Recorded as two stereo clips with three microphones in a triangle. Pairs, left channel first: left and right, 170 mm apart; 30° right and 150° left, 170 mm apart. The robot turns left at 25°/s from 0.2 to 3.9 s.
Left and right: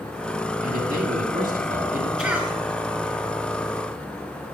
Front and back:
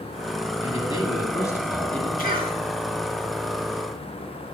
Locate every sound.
0.6 s a man speaking: 80° right, 1.9 m; by 2.1 s 115° right, 1.9 m
2.2 s a cough: 5° right, 4 m; by 2.5 s 15° right, 4 m